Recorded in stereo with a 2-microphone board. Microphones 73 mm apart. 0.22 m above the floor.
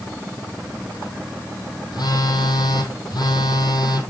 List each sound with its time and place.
1.9 s a phone buzzing: 70° left (ahead or behind), 1.7 m